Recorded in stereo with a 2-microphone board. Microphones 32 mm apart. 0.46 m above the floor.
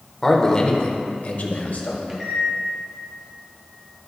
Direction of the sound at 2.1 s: 15° right (ahead or behind).